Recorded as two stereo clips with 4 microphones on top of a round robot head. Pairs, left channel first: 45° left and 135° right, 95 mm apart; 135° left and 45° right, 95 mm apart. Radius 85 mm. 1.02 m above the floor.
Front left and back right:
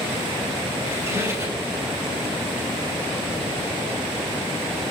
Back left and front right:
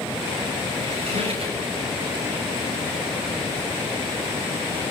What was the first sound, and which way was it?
A squeak, 70° right.